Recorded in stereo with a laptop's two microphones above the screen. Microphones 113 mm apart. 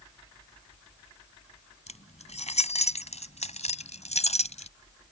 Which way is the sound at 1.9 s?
75° left (ahead or behind).